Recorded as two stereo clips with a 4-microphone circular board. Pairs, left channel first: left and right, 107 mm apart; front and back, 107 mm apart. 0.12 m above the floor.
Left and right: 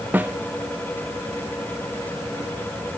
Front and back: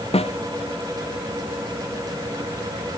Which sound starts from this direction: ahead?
A snare drum, at 0.1 s.